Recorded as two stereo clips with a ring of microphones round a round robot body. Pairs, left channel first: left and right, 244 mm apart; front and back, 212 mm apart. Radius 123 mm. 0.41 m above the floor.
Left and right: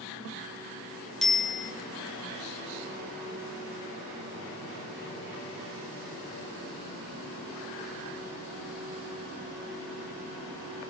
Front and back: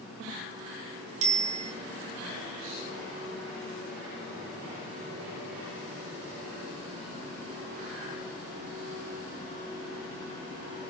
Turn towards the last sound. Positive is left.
turn(degrees=175)